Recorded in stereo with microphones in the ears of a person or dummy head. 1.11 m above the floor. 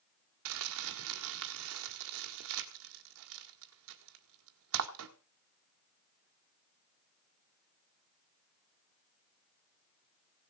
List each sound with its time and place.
0.5 s crumpling: 65° right (ahead or behind), 1.8 m